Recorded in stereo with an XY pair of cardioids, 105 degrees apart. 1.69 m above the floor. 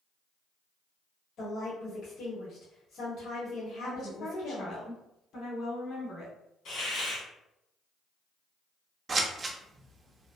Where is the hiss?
65° left, 1.6 m.